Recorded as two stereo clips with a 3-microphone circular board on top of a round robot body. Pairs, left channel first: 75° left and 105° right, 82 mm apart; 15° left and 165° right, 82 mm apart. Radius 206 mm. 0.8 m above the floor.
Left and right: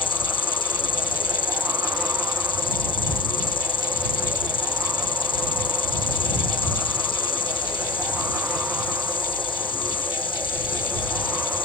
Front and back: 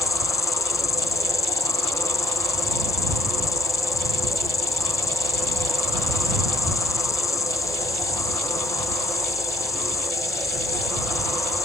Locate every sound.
0.0 s an insect: 65° left